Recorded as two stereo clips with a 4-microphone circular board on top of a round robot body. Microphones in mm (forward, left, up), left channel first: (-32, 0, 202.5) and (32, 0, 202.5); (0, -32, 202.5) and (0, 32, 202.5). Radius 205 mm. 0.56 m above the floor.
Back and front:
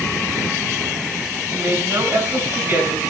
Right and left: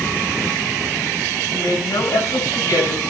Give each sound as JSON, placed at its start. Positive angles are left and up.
{"t": 1.5, "sound": "a woman speaking", "azimuth_deg": -60, "distance_m": 7.0}